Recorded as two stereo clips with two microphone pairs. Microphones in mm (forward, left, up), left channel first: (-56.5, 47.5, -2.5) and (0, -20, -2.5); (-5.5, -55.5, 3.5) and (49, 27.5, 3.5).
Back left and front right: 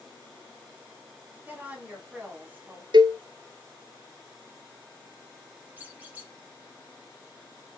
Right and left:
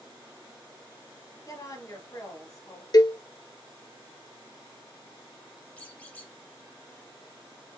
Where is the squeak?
80° right, 1.0 m.